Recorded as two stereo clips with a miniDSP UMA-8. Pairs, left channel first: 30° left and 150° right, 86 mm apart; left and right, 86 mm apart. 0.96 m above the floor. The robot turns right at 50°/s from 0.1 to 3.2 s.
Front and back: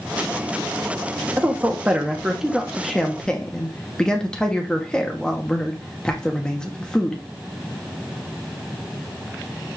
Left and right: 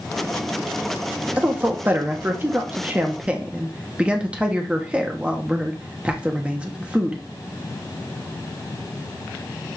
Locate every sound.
1.4 s a man speaking: 125° right, 0.7 m; by 7.2 s 35° right, 0.7 m